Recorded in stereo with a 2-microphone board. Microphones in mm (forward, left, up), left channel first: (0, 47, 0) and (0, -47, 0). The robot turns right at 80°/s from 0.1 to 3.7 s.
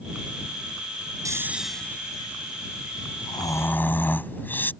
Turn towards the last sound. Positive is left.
turn(degrees=20)  # may be behind; listen again after turning